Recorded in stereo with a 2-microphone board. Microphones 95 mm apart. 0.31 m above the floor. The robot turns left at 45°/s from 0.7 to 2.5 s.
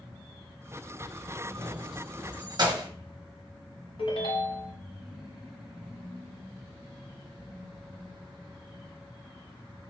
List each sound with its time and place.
1.6 s keys jangling: 50° right (ahead or behind), 1.2 m; by 2.9 s 45° right (ahead or behind), 1.2 m
4.0 s a ringtone: 70° left (ahead or behind), 1.1 m